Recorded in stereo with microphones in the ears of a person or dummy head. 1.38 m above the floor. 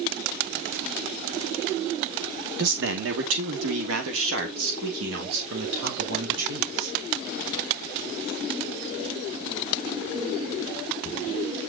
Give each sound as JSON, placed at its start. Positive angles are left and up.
{"t": 2.6, "sound": "a man speaking", "side_deg": -55, "distance_m": 2.5}